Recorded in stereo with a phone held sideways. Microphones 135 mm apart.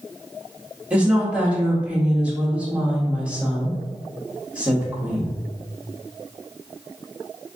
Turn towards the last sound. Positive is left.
turn(degrees=-10)  # may be behind; listen again after turning